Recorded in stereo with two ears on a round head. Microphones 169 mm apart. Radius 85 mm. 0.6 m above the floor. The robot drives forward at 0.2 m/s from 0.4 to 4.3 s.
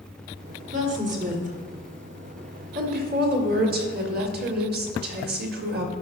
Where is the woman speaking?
40° right (ahead or behind), 1.9 m; by 5.9 s 55° right (ahead or behind), 1.5 m.